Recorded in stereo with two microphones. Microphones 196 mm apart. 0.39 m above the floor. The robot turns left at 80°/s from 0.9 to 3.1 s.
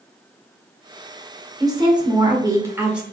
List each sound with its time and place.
1.6 s a woman speaking: 20° right (ahead or behind), 0.9 m; by 3.0 s 5° right (ahead or behind), 0.9 m